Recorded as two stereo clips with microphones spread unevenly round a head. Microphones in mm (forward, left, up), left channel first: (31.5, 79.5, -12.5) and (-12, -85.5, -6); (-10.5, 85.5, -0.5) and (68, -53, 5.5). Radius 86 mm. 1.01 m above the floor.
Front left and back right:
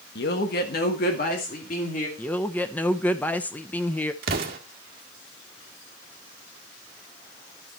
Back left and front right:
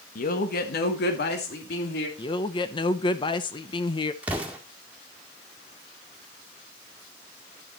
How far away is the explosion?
About 1.8 m.